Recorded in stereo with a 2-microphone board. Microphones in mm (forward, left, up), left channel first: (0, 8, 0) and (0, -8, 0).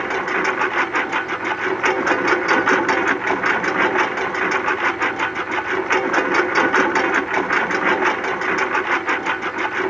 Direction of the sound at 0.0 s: 5° left (ahead or behind).